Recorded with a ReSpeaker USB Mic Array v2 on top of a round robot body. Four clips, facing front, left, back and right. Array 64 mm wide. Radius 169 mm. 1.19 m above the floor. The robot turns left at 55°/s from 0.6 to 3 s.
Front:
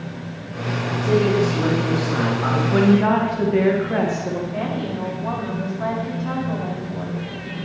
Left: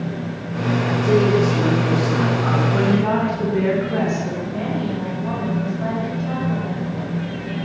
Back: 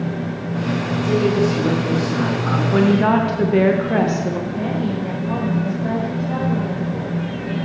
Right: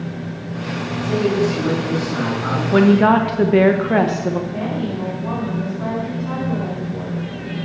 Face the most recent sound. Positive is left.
turn(degrees=-5)